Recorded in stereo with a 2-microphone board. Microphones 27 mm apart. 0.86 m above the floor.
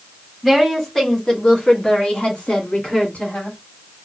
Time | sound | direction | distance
0.4 | a woman speaking | 5° left (ahead or behind) | 1.4 m